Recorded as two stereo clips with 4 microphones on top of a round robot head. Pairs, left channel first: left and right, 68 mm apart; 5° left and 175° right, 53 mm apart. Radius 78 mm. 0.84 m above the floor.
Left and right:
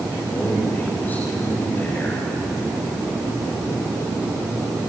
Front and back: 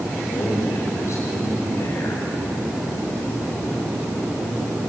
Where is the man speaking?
25° left, 4 m.